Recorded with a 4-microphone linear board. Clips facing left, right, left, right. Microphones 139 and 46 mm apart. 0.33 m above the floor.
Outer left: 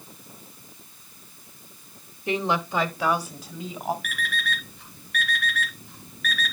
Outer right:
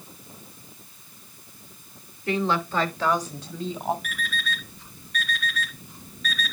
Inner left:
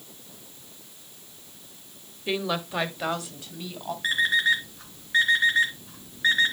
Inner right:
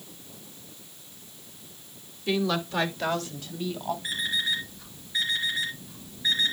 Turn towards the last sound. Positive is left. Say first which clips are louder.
# outer left 1 dB, inner left 10 dB
turn(degrees=75)  # may be behind; listen again after turning